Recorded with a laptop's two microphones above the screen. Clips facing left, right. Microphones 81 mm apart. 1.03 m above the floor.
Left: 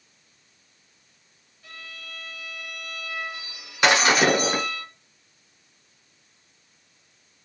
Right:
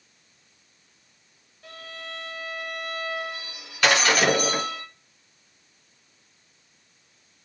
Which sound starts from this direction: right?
A violin, at 1.6 s.